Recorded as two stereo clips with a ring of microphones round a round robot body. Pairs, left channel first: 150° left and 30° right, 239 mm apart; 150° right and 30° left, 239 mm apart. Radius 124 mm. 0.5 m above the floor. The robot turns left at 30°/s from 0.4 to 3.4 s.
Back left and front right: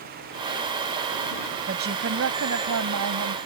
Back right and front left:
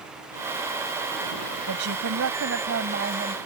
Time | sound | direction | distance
1.7 | a woman speaking | 25° left | ?